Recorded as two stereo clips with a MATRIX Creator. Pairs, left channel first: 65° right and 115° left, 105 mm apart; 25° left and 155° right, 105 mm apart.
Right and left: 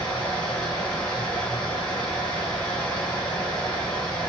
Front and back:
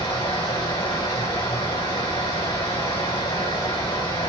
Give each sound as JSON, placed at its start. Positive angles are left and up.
{"t": 0.0, "sound": "running water", "azimuth_deg": 10, "distance_m": 3.0}